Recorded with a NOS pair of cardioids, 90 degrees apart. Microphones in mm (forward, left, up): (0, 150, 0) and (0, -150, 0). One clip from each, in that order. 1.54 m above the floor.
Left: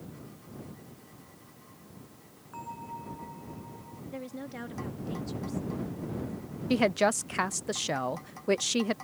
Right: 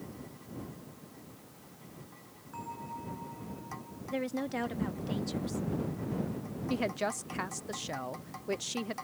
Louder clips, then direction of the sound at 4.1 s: Right 7 dB; 35° right.